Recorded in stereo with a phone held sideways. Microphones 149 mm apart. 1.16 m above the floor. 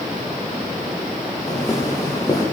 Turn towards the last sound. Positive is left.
turn(degrees=20)  # may be behind; listen again after turning